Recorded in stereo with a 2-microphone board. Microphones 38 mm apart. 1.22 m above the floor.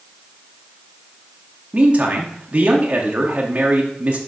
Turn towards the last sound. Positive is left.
turn(degrees=-30)  # may be behind; listen again after turning